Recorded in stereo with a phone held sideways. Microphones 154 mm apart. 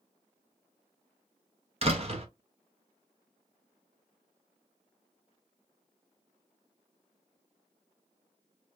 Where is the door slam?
45° right (ahead or behind), 0.7 m.